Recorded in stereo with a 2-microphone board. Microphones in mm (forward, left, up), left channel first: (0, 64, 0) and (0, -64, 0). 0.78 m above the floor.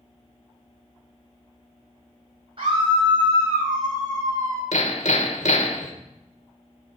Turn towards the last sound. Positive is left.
turn(degrees=70)  # may be behind; listen again after turning